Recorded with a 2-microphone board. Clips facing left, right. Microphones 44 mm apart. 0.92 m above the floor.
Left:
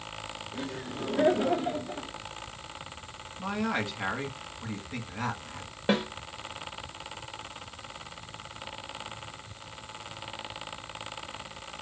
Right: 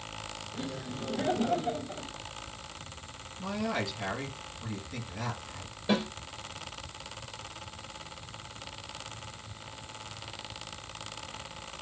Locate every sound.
0.5 s laughter: 65° left (ahead or behind), 2 m; by 2.1 s 75° left (ahead or behind), 1.4 m
3.4 s a man speaking: 40° left (ahead or behind), 1.8 m
5.9 s a snare drum: 55° left (ahead or behind), 1.5 m